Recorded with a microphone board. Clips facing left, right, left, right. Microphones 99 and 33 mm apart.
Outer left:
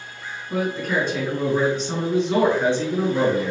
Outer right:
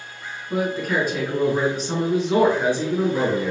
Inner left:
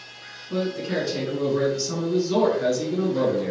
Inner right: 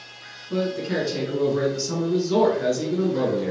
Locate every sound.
0.5 s a man speaking: 5° right (ahead or behind), 1.1 m